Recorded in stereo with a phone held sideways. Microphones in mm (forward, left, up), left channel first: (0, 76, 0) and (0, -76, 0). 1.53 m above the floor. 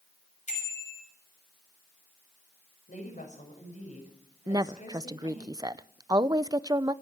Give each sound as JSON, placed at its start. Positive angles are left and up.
{"t": 0.5, "sound": "a bicycle bell", "side_deg": 50, "distance_m": 6.5}
{"t": 2.9, "sound": "a woman speaking", "side_deg": 55, "distance_m": 6.5}
{"t": 4.5, "sound": "a woman speaking", "side_deg": -25, "distance_m": 0.5}